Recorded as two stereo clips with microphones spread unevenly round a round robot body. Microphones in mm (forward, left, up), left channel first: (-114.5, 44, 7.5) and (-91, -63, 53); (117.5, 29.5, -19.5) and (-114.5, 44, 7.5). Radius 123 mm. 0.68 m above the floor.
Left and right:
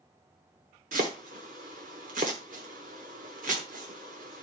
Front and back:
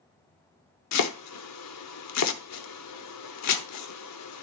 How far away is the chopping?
About 0.9 m.